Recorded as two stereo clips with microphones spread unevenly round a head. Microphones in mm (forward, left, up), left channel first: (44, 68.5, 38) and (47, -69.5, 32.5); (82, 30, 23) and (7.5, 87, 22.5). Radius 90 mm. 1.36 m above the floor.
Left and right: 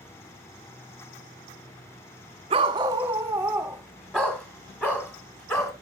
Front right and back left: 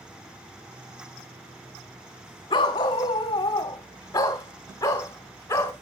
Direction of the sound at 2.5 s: 55° right.